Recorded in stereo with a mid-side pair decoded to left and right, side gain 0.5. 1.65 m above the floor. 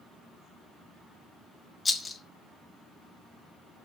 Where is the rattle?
30° left, 0.5 m.